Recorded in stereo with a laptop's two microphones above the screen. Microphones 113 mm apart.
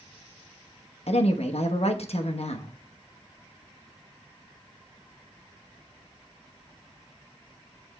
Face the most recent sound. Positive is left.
turn(degrees=65)  # may be behind; listen again after turning